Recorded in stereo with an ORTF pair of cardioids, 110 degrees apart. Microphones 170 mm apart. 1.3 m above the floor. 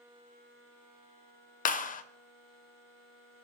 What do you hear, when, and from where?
1.6 s a clap: 55° left, 0.6 m